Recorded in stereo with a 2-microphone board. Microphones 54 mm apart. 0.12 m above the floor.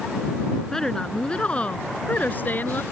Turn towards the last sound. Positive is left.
turn(degrees=40)  # may be behind; listen again after turning